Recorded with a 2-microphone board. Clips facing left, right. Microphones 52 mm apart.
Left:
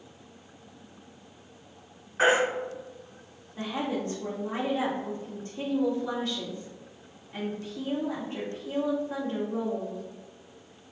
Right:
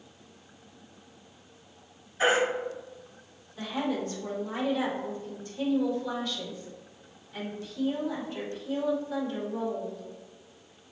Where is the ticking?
No ticking in this recording.